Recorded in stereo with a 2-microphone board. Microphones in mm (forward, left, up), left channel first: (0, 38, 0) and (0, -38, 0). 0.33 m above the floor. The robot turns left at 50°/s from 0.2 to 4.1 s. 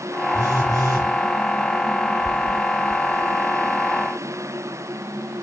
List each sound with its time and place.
0.3 s a phone buzzing: 50° right, 1.1 m; by 1.1 s 90° right, 1.1 m